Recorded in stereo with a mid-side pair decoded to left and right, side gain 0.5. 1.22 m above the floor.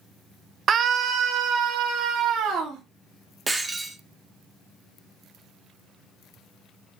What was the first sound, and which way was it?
A scream, 50° right.